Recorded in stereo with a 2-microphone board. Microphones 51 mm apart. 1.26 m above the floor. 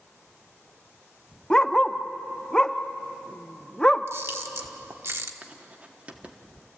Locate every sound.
1.5 s a dog barking: 15° left (ahead or behind), 0.7 m
4.1 s a camera shutter: 60° right (ahead or behind), 1.2 m
5.4 s writing: 25° right (ahead or behind), 1.6 m